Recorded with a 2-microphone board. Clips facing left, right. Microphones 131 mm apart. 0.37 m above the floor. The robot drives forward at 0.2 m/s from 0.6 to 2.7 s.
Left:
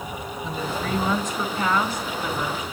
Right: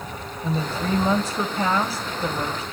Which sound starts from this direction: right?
A woman speaking, at 0.4 s.